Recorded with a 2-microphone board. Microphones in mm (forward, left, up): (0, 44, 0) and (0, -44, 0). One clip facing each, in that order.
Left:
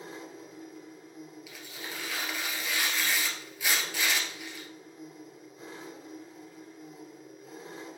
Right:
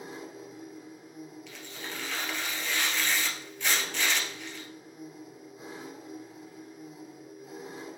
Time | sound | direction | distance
0.0 | an engine running | 10° right (ahead or behind) | 2.5 m
1.5 | tearing paper | 5° left (ahead or behind) | 1.6 m